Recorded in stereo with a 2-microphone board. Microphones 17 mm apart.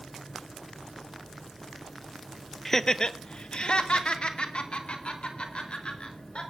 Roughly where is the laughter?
Left.